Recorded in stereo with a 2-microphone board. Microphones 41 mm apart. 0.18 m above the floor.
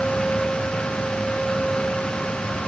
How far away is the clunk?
No clunk in this recording.